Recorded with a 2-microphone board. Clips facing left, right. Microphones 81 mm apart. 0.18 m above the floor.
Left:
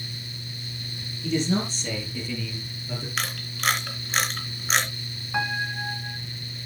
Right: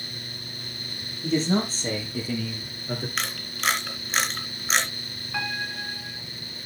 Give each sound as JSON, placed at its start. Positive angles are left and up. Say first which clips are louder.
{"t": 1.2, "sound": "a man speaking", "louder": "right 1 dB", "side_deg": -40, "distance_m": 5.0}
{"t": 3.2, "sound": "a camera shutter", "louder": "even", "side_deg": 0, "distance_m": 3.0}
{"t": 5.3, "sound": "a piano", "louder": "left 4 dB", "side_deg": 20, "distance_m": 1.3}